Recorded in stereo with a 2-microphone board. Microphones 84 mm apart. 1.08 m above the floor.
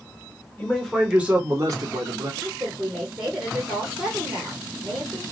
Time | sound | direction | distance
0.6 | a man speaking | 15° left (ahead or behind) | 1.0 m
2.4 | a woman speaking | 5° right (ahead or behind) | 1.0 m